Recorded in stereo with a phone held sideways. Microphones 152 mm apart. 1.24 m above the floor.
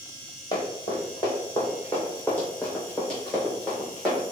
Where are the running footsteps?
25° left (ahead or behind), 2 m; by 4.3 s centre (ahead or behind), 4 m.